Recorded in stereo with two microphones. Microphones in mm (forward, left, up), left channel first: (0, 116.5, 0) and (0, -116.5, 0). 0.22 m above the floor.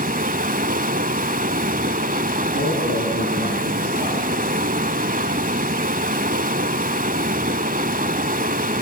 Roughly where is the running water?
Right.